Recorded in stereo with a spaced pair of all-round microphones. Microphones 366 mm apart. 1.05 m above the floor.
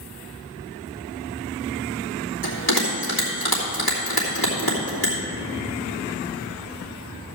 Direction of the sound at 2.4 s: 75° left (ahead or behind).